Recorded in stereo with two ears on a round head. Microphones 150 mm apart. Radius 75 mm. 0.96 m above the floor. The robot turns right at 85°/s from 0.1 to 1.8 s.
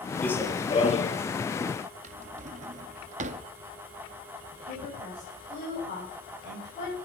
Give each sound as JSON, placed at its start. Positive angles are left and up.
{"t": 0.2, "sound": "running footsteps", "azimuth_deg": 15, "distance_m": 1.1}
{"t": 2.0, "sound": "a drawer", "side_deg": -45, "distance_m": 0.6}
{"t": 4.5, "sound": "a woman speaking", "side_deg": 45, "distance_m": 5.5}